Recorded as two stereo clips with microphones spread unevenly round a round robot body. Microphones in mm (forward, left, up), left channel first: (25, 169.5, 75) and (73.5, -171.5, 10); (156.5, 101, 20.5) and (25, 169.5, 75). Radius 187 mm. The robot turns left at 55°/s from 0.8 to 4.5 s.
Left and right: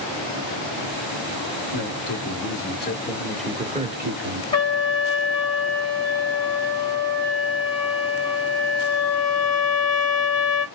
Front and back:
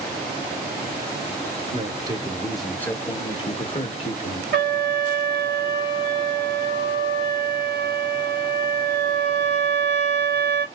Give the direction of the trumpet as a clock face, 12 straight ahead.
6 o'clock.